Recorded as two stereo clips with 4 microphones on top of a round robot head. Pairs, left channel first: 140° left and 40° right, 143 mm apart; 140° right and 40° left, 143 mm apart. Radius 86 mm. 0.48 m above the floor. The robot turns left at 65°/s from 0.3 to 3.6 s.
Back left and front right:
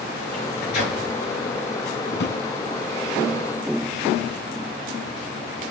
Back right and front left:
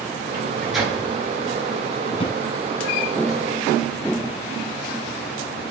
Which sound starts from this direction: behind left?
A microwave, at 0.3 s.